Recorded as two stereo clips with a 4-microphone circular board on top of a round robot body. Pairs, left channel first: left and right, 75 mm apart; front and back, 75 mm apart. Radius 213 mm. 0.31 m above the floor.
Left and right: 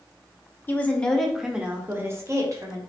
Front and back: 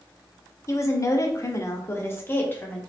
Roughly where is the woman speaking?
Ahead left.